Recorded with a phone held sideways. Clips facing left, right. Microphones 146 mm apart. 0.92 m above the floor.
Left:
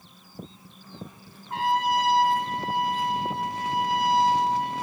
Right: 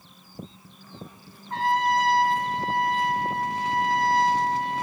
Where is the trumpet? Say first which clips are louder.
Right 1 dB; 10° left (ahead or behind), 1.5 m.